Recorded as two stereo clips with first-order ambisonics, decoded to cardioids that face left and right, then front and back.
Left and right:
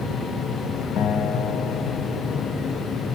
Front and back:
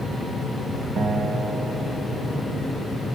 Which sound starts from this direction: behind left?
A guitar, at 1.0 s.